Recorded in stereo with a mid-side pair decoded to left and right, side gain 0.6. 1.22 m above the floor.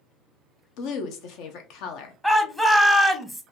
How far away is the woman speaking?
About 0.8 m.